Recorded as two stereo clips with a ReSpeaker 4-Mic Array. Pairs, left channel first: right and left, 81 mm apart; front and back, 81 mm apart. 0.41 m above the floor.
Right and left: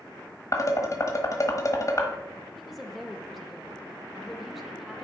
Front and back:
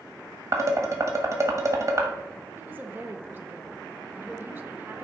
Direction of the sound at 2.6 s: 175° left.